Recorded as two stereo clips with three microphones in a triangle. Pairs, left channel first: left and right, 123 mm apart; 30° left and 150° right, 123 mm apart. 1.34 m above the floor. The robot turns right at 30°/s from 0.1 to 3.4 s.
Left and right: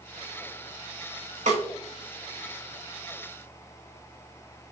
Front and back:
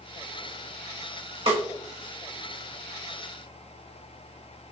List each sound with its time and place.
1.5 s a snare drum: 110° right, 1.5 m; by 1.6 s 105° right, 1.5 m